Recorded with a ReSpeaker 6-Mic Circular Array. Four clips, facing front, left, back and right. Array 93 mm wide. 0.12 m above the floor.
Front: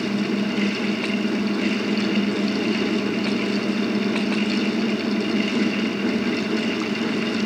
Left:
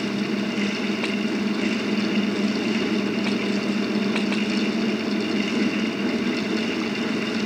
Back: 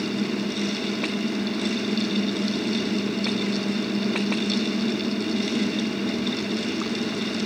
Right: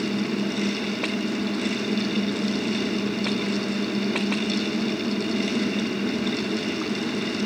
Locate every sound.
Only background noise.